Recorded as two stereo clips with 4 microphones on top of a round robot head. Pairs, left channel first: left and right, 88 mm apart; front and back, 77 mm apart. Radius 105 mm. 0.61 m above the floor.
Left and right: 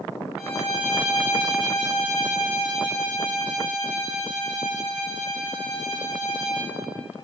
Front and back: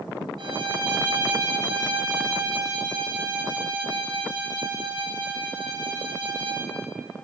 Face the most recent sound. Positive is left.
turn(degrees=-175)